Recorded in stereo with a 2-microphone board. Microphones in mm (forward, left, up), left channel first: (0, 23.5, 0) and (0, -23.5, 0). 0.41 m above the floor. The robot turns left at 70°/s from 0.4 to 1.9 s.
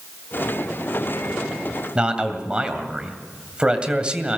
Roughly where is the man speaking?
Right.